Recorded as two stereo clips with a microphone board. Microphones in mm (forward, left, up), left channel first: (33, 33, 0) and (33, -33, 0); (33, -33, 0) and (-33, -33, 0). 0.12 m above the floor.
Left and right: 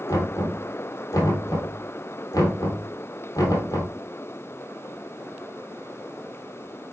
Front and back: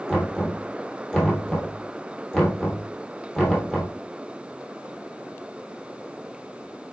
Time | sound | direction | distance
0.1 | knocking | 80° left | 3 m